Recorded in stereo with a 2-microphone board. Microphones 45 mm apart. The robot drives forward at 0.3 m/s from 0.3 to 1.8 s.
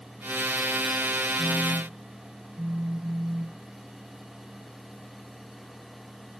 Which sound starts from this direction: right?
A phone buzzing, at 1.4 s.